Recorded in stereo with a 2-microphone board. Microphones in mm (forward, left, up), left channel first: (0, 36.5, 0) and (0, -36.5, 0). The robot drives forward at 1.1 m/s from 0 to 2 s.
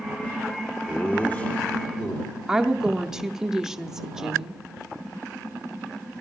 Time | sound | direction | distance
0.9 | laughter | 25° left (ahead or behind) | 0.9 m
2.5 | a woman speaking | 5° right (ahead or behind) | 0.7 m